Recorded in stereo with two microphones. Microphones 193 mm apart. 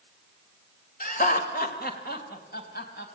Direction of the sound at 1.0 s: 50° left (ahead or behind).